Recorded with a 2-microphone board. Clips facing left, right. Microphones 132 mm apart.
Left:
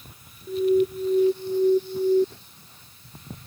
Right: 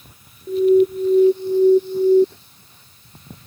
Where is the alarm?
25° right (ahead or behind).